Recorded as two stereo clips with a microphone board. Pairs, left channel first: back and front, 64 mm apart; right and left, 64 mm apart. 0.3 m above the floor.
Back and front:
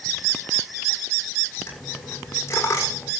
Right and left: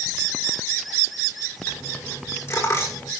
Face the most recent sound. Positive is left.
turn(degrees=-135)